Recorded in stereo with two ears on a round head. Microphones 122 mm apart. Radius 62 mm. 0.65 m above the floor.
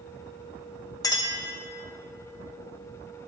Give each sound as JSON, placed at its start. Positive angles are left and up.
{"t": 1.0, "sound": "a clink", "side_deg": 25, "distance_m": 0.8}